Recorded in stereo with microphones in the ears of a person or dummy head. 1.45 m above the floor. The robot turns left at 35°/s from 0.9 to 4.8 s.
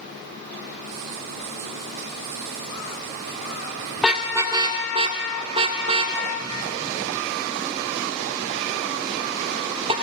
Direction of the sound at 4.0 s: Centre (ahead or behind).